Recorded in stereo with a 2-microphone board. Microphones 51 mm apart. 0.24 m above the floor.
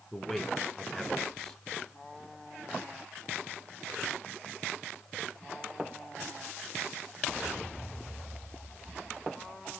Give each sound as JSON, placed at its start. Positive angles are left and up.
{"t": 0.1, "sound": "a man speaking", "side_deg": 15, "distance_m": 1.6}